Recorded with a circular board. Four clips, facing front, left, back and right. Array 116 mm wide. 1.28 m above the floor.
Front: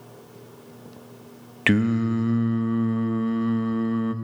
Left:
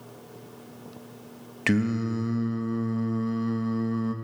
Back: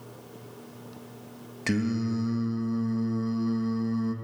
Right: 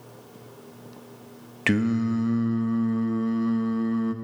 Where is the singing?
15° right, 0.6 m.